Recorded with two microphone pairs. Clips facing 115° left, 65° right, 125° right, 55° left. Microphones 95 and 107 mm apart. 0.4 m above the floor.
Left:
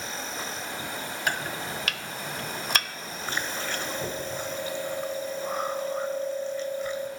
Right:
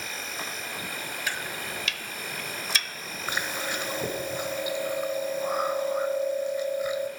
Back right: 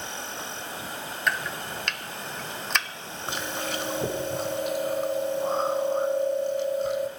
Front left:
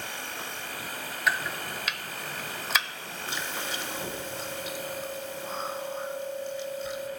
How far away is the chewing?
About 0.9 m.